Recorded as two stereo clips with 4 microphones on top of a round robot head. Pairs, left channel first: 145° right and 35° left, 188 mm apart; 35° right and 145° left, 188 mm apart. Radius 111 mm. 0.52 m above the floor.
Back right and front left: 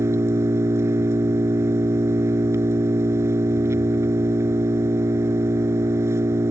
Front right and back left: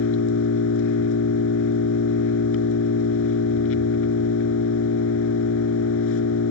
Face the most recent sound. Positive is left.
turn(degrees=-40)